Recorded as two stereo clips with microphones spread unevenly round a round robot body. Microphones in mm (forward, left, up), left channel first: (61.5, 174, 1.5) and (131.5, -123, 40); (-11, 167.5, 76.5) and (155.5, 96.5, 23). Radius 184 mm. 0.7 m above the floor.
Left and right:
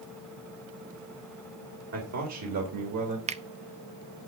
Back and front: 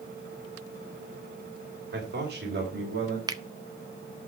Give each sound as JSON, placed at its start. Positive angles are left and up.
{"t": 1.9, "sound": "a man speaking", "azimuth_deg": -35, "distance_m": 3.5}
{"t": 3.3, "sound": "a finger snap", "azimuth_deg": -10, "distance_m": 0.9}